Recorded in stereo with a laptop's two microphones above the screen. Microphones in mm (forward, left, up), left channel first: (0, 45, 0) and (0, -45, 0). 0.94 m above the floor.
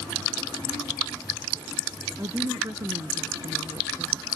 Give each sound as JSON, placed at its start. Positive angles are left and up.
{"t": 2.2, "sound": "a woman speaking", "side_deg": -40}